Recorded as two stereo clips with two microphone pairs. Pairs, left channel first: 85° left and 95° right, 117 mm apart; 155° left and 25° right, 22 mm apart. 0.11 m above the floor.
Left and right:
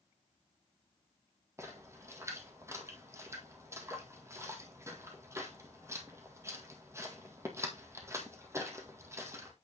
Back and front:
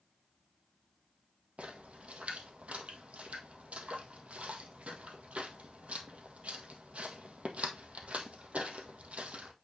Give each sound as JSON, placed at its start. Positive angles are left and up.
{"t": 1.6, "sound": "a splash", "azimuth_deg": -30, "distance_m": 1.7}